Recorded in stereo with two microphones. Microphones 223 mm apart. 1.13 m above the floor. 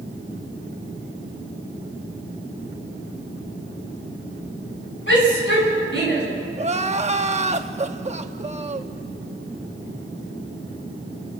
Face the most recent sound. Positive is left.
turn(degrees=-30)  # may be behind; listen again after turning